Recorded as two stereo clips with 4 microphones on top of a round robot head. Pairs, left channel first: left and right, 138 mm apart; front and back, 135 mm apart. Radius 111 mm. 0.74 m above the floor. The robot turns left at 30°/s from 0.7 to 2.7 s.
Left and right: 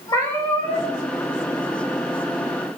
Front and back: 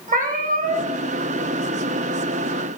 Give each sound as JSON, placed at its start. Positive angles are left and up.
{"t": 0.1, "sound": "a cat meowing", "azimuth_deg": 160, "distance_m": 2.0}